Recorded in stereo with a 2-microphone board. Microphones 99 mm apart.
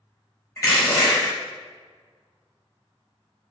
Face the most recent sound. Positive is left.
turn(degrees=35)  # may be behind; listen again after turning